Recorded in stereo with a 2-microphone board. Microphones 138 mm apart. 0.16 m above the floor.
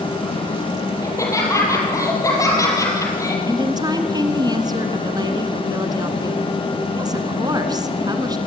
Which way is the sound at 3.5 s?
30° right (ahead or behind).